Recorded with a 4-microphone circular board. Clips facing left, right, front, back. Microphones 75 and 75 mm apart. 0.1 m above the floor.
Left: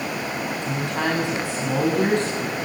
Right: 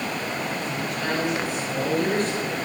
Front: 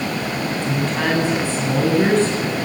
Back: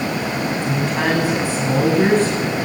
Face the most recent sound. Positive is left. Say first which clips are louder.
# left 3 dB, even
turn(degrees=105)